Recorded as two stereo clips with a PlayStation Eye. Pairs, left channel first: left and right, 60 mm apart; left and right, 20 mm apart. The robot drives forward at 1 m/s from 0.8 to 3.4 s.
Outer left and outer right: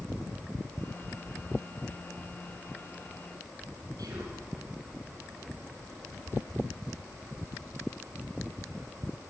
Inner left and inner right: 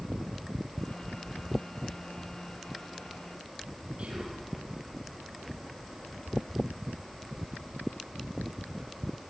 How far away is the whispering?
About 8 m.